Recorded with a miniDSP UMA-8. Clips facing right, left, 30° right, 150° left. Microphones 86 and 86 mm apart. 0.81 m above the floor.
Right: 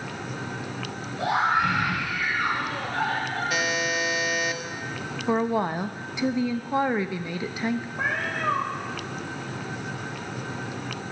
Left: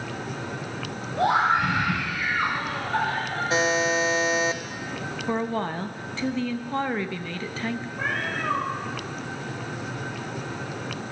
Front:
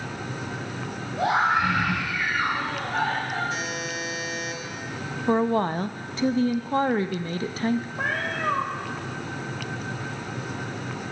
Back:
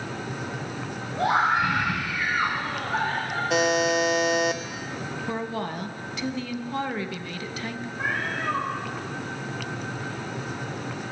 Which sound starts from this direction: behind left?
A buzzer, at 3.5 s.